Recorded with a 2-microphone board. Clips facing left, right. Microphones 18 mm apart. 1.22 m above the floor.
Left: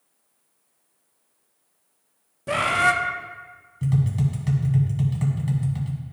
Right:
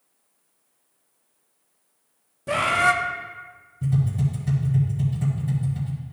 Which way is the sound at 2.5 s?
10° left (ahead or behind).